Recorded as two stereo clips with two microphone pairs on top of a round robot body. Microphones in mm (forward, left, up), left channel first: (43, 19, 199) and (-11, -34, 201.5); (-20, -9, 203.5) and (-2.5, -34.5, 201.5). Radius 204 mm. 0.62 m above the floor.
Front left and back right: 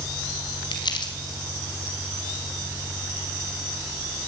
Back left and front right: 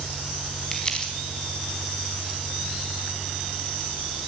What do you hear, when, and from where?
0.7 s crumpling: 65° left, 4 m